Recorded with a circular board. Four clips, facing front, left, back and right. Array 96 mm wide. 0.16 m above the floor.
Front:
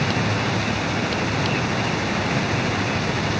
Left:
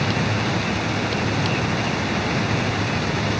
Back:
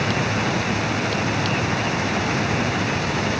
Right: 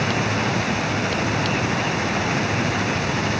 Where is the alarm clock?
No alarm clock in this recording.